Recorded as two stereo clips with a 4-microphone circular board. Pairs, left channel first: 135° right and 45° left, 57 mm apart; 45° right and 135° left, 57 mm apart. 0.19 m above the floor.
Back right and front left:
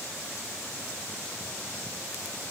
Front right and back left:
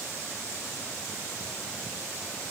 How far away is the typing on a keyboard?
No typing on a keyboard in this recording.